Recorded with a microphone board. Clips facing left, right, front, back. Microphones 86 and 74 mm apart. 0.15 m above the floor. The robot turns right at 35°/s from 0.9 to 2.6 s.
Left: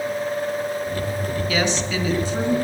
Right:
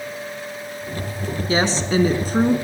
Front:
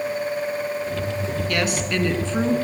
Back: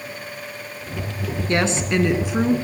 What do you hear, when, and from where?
1.5 s a woman speaking: 135° right, 1.5 m; by 2.5 s 95° right, 1.5 m